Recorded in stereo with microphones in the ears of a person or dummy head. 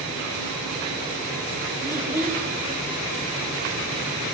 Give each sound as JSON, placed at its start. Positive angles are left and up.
{"t": 1.8, "sound": "a child speaking", "side_deg": -15, "distance_m": 2.0}